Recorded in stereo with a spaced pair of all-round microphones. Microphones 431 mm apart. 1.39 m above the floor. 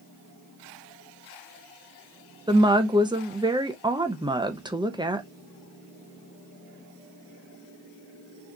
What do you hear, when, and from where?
2.5 s a woman speaking: 10° right (ahead or behind), 0.6 m